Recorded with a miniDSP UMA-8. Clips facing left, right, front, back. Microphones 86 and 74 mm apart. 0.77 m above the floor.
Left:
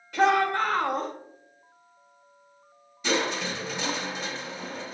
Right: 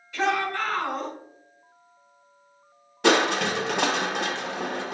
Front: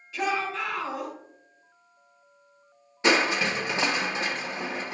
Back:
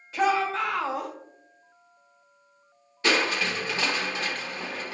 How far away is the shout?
About 2.5 m.